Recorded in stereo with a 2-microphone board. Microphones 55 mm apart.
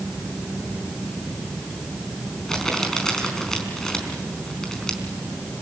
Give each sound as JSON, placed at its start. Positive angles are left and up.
{"t": 2.5, "sound": "crumpling", "side_deg": 10, "distance_m": 4.5}